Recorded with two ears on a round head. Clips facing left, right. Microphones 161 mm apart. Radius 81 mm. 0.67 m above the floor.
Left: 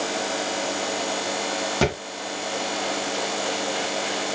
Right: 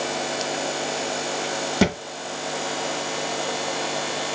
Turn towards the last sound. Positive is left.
turn(degrees=-15)  # may be behind; listen again after turning